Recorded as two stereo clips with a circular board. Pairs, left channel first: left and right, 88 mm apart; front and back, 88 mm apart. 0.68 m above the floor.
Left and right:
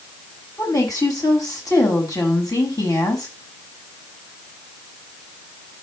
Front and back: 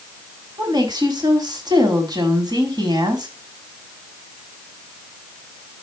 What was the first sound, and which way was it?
A woman speaking, 140° left.